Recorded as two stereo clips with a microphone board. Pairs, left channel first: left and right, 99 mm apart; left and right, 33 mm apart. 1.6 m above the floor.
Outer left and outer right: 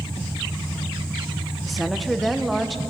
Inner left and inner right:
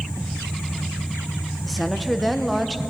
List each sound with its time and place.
1.7 s a woman speaking: centre (ahead or behind), 0.7 m